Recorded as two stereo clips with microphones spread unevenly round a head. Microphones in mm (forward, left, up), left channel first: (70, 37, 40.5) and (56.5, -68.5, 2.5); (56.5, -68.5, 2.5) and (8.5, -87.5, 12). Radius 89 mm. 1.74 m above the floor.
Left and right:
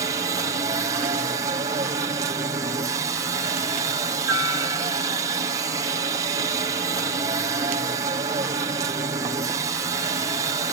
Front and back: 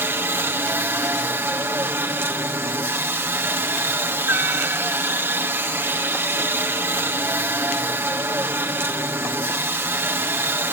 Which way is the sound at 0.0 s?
125° right.